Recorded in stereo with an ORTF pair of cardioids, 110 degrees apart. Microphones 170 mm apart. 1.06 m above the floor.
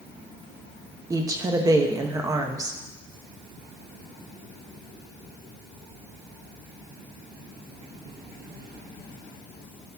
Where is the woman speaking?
20° right, 1.0 m.